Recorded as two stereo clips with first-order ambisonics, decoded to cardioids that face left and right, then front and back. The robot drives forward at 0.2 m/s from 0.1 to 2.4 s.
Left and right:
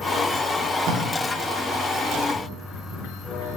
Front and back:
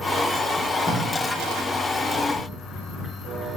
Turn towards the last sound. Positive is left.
turn(degrees=-115)